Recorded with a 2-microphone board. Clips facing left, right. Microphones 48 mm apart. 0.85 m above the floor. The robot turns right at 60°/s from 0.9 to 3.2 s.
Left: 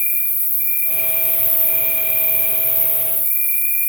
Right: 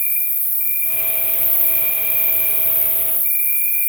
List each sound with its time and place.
0.0 s an insect: 80° left, 0.8 m; by 3.9 s 140° right, 0.8 m